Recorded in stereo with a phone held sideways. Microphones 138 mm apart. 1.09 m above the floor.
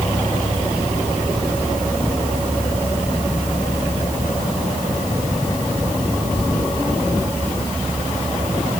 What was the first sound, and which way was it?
Only background noise.